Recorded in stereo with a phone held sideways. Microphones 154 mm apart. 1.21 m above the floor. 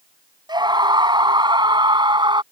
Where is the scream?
30° right (ahead or behind).